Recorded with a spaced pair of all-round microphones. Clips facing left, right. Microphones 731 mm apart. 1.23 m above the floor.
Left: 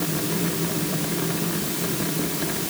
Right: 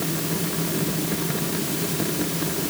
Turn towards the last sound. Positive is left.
No sound to turn to.